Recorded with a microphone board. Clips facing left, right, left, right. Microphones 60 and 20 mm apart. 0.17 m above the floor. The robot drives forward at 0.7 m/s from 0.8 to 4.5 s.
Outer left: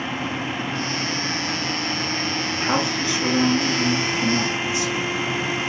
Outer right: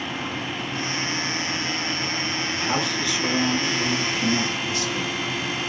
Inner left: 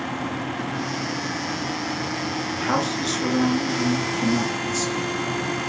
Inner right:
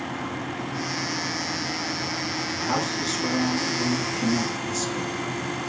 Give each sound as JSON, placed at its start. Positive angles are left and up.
{"t": 2.5, "sound": "a man speaking", "side_deg": 30, "distance_m": 2.5}